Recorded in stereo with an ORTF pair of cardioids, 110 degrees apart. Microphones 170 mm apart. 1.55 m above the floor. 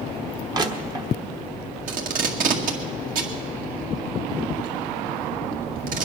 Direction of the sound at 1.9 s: 55° right.